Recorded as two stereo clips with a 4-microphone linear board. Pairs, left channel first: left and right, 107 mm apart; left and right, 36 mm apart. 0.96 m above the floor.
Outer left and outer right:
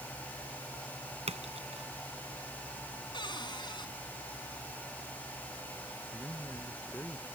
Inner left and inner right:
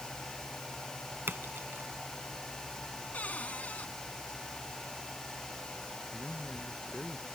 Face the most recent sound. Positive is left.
turn(degrees=15)  # may be behind; listen again after turning